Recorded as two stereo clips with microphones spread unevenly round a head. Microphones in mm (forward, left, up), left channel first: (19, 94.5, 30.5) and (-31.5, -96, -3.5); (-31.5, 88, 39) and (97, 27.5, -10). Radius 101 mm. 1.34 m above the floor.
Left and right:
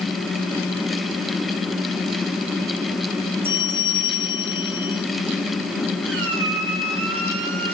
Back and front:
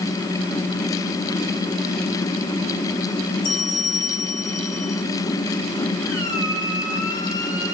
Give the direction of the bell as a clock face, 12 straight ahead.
6 o'clock.